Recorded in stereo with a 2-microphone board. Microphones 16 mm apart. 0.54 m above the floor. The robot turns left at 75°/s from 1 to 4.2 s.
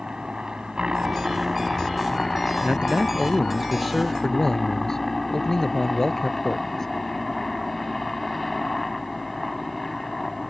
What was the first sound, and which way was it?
A helicopter, 110° right.